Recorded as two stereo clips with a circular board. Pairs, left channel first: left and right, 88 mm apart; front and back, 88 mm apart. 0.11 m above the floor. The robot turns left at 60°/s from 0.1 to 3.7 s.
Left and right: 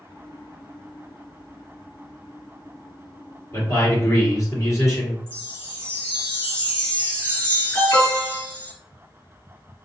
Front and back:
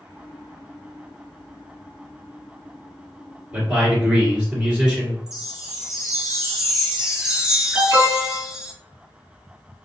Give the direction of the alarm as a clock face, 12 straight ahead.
7 o'clock.